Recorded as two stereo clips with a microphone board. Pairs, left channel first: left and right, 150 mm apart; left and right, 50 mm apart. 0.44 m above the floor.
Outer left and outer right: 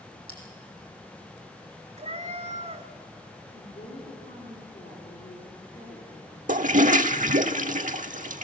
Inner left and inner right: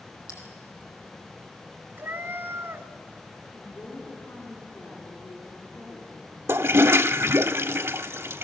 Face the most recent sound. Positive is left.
turn(degrees=-60)  # may be behind; listen again after turning